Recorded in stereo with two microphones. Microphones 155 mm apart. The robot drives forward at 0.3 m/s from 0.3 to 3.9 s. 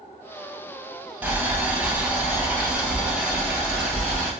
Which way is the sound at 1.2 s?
10° right (ahead or behind).